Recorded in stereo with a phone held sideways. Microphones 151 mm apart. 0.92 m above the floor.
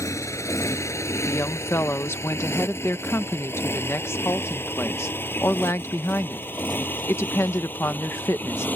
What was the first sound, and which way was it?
A motorcycle, 20° left (ahead or behind).